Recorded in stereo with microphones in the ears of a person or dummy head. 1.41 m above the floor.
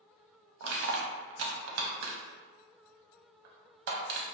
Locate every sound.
0.6 s crushing: 65° right (ahead or behind), 0.6 m